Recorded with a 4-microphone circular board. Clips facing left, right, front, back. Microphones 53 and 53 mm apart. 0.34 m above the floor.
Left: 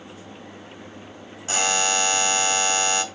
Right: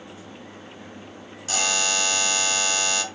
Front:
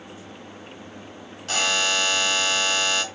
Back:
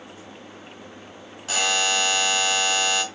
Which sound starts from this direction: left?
A buzzer, at 1.5 s.